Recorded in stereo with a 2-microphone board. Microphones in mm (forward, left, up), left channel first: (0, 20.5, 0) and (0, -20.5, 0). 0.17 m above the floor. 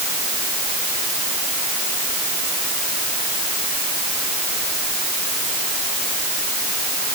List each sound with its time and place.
Only background noise.